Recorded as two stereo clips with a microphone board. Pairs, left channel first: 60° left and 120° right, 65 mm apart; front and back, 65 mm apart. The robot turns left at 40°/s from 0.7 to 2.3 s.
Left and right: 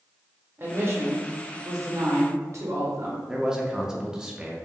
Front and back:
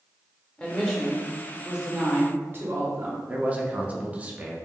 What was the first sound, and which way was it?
A woman speaking, 70° right.